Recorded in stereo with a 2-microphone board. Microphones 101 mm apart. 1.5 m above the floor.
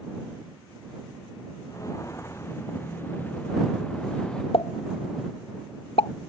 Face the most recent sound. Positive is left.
turn(degrees=75)  # may be behind; listen again after turning